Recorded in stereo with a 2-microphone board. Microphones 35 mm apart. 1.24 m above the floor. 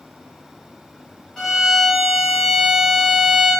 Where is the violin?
15° left (ahead or behind), 1.0 m.